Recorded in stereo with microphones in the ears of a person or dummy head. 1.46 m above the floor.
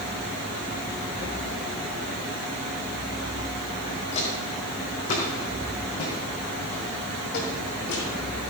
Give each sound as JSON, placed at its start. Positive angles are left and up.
{"t": 4.1, "sound": "footsteps", "side_deg": 30, "distance_m": 4.0}